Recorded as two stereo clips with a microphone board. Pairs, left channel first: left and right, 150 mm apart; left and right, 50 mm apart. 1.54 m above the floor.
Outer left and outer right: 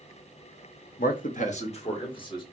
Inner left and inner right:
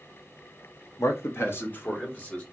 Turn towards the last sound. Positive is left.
turn(degrees=30)  # may be behind; listen again after turning